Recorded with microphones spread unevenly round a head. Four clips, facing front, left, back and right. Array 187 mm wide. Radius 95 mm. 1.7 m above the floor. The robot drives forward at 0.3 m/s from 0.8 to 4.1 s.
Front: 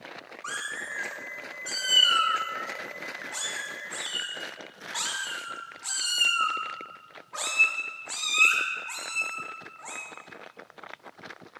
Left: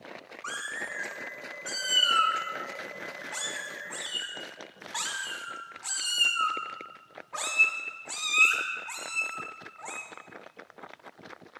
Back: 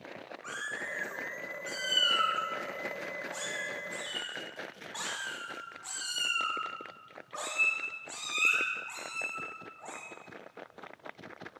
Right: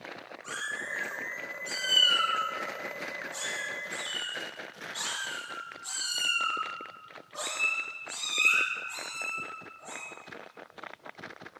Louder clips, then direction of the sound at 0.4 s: Left 1 dB, front 4 dB; 60° left.